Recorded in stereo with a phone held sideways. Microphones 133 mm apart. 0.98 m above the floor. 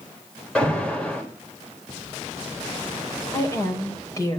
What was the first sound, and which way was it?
An alarm, 5° left (ahead or behind).